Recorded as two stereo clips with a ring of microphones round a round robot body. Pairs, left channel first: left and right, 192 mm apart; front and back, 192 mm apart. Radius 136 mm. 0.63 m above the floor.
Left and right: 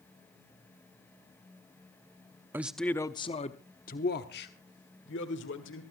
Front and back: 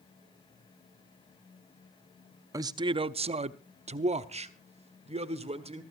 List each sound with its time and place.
2.5 s a man speaking: 145° right, 0.5 m; by 5.8 s 125° left, 1.8 m